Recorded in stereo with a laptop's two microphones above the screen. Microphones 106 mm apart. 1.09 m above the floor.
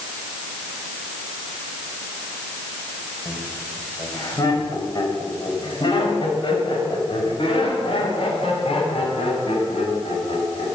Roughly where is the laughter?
Left.